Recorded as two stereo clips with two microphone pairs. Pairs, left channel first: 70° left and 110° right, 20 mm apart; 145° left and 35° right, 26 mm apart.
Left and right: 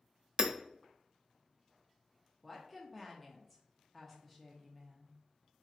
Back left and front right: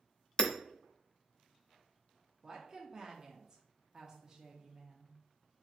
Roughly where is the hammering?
Behind right.